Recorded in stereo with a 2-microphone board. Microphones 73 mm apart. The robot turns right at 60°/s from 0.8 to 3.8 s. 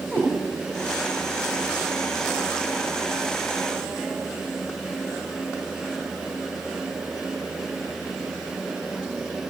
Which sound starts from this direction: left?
A cat meowing, at 0.1 s.